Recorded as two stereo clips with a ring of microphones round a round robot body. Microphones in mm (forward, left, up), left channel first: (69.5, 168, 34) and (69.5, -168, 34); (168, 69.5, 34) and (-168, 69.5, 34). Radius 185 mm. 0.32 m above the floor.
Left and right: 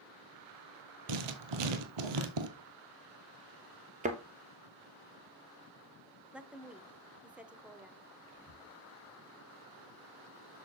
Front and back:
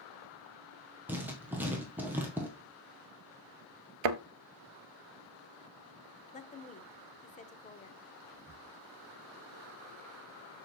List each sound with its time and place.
1.1 s writing: 95° right, 1.6 m
4.0 s a thud: 160° right, 0.9 m
6.3 s a woman speaking: 10° right, 1.1 m
8.3 s whispering: 50° right, 4.5 m